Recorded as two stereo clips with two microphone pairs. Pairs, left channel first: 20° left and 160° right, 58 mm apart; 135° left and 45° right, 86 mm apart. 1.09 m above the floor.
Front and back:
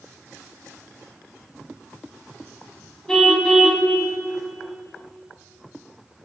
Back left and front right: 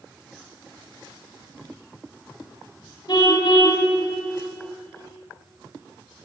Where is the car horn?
100° left, 3 m.